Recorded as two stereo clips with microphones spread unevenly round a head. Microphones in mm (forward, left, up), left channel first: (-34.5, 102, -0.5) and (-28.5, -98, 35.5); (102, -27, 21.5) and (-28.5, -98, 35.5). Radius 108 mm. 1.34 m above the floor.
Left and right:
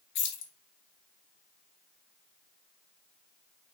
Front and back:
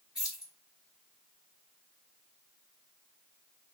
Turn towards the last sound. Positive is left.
turn(degrees=125)